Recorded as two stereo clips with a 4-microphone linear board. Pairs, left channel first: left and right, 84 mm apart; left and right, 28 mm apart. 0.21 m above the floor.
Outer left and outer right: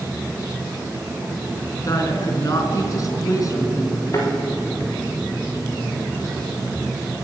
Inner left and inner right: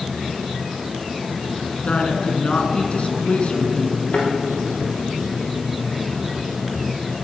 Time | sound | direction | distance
1.8 | a woman speaking | 45° left (ahead or behind) | 3 m
4.1 | a thud | 40° left (ahead or behind) | 7.5 m